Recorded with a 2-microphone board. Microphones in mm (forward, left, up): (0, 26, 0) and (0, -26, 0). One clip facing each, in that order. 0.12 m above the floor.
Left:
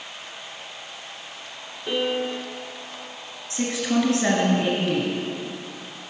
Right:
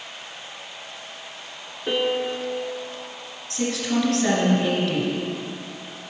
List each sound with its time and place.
1.9 s a piano: 25° right (ahead or behind), 1.0 m
3.5 s a woman speaking: 20° left (ahead or behind), 1.6 m